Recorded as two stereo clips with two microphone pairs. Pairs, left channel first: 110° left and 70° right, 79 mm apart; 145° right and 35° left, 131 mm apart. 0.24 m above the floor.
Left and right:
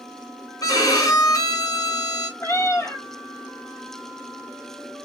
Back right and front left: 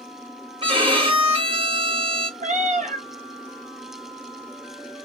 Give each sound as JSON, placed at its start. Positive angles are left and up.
{"t": 0.6, "sound": "a violin", "azimuth_deg": 80, "distance_m": 1.7}
{"t": 2.4, "sound": "a cat meowing", "azimuth_deg": 55, "distance_m": 1.6}